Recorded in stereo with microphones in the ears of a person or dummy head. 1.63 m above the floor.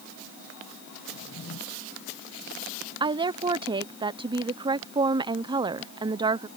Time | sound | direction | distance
1.1 | a drawer | 75° left (ahead or behind) | ?
3.0 | a woman speaking | 25° right (ahead or behind) | ?